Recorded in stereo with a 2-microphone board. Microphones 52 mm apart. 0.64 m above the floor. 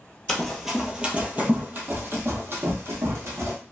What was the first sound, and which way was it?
Running footsteps, 10° left (ahead or behind).